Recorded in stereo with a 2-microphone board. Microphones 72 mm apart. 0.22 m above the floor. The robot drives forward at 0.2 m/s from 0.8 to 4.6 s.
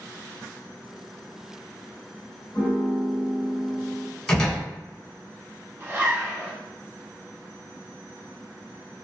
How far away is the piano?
About 0.8 m.